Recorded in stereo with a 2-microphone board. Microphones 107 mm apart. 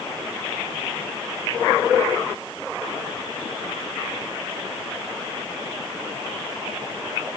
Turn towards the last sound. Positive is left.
No sound to turn to.